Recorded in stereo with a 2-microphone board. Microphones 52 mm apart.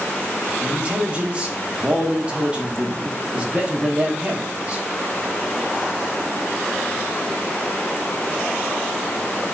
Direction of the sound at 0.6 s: 25° right (ahead or behind).